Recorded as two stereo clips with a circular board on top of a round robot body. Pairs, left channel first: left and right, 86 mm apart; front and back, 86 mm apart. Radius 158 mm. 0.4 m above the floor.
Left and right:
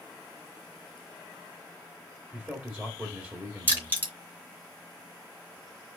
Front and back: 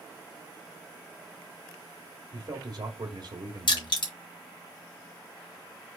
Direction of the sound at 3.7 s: 25° right.